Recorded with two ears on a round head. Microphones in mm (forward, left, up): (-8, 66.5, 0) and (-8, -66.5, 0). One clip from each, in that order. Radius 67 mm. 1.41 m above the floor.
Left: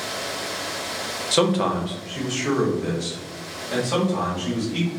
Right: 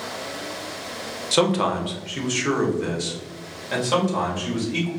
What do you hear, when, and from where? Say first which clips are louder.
1.3 s a man speaking: right 1 dB; centre (ahead or behind), 0.6 m; by 4.9 s 70° right (ahead or behind), 2.5 m